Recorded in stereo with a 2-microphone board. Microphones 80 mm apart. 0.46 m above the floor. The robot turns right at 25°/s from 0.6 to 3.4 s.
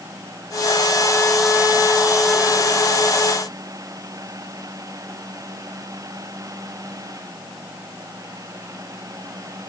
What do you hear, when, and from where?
Only background noise.